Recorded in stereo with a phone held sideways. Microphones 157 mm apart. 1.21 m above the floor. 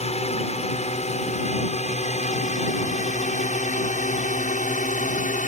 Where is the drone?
45° left (ahead or behind); by 5.5 s 55° left (ahead or behind).